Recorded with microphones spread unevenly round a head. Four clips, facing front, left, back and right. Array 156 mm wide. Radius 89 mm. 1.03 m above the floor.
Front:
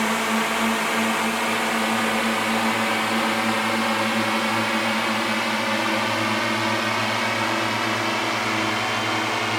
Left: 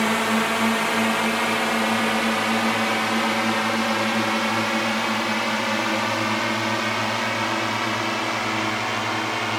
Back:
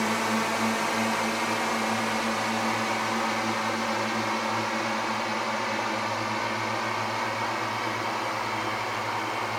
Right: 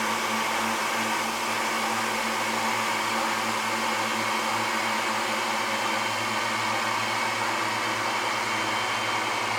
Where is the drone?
70° left; by 9.6 s 35° left.